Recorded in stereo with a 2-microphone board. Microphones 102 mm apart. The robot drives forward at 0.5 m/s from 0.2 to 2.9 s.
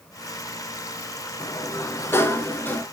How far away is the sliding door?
About 0.7 m.